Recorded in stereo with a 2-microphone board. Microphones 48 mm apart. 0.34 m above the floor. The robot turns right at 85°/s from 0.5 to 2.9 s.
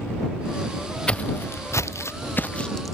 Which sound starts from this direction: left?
Footsteps, at 1.1 s.